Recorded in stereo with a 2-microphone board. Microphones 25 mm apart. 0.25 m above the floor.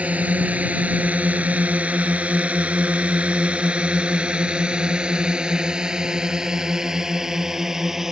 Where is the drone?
70° right (ahead or behind); by 8.1 s 20° right (ahead or behind).